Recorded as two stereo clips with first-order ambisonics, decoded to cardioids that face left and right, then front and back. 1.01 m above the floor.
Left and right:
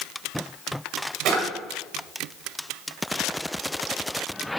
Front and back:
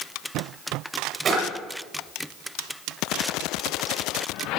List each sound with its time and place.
1.2 s a drawer: 120° right, 1.8 m